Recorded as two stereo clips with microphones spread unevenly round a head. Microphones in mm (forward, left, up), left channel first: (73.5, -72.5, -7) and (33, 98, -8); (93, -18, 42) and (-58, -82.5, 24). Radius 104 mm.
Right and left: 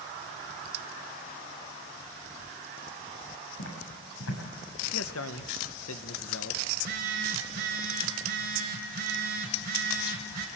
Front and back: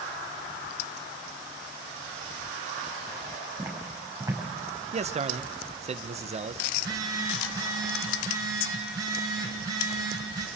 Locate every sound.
3.6 s footsteps: 80° right, 7 m
4.9 s a man speaking: 105° right, 0.9 m
6.7 s a phone buzzing: 130° left, 1.8 m